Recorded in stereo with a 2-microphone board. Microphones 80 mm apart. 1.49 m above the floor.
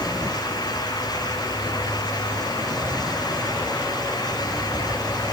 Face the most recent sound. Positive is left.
No sound to turn to.